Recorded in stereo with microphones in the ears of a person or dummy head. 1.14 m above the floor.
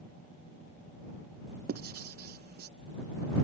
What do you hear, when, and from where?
1.7 s writing: 45° right (ahead or behind)